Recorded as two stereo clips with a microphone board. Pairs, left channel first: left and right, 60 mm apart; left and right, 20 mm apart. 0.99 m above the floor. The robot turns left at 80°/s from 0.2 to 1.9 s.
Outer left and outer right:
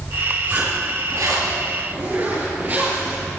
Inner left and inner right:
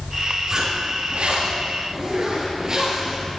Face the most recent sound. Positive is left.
turn(degrees=-145)